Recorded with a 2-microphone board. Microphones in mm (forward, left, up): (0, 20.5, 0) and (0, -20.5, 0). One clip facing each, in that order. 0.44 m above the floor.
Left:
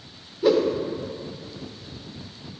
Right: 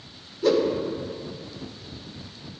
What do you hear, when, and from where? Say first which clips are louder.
0.4 s a whoosh: left 1 dB; 10° left (ahead or behind), 1.3 m